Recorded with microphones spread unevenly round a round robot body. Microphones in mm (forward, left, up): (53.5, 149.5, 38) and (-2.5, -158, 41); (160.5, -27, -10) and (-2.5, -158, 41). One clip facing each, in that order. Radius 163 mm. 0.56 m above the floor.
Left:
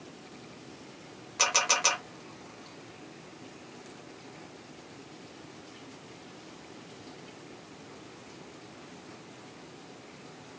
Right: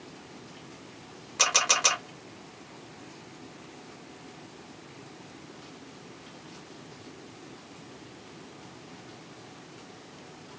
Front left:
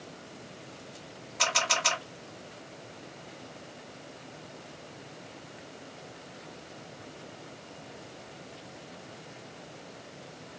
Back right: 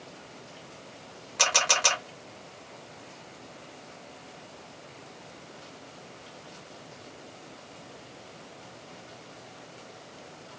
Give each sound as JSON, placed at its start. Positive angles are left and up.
{"t": 1.4, "sound": "a camera shutter", "azimuth_deg": 175, "distance_m": 1.0}